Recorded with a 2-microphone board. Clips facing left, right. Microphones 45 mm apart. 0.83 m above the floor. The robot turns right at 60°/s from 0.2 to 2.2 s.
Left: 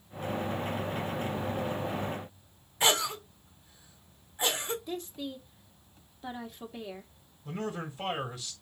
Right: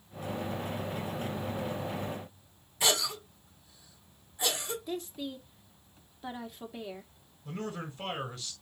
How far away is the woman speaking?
About 2.0 m.